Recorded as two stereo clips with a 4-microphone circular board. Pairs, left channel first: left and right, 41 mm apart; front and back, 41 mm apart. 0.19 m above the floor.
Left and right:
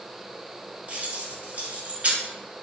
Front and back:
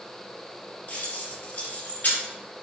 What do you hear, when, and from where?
0.9 s keys jangling: 40° right, 1.9 m